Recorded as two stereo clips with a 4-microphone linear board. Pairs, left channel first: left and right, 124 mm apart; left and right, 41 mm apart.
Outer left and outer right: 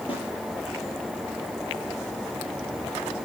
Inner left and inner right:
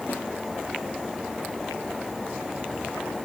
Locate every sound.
0.1 s a snare drum: 45° left (ahead or behind), 9 m